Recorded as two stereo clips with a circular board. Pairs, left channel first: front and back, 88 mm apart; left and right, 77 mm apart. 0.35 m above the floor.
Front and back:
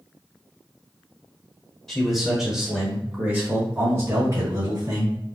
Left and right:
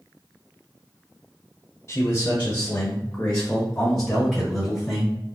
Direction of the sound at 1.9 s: 80° left.